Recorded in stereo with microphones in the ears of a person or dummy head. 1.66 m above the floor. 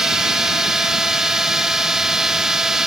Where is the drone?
5° right (ahead or behind).